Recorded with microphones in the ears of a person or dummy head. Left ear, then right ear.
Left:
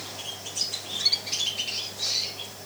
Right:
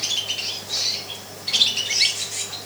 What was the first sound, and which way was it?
Only background noise.